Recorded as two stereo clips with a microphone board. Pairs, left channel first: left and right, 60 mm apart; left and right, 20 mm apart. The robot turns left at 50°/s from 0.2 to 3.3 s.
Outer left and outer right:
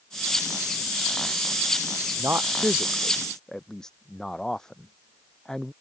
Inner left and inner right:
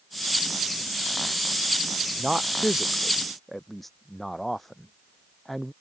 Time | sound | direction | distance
2.2 | a man speaking | 45° right (ahead or behind) | ?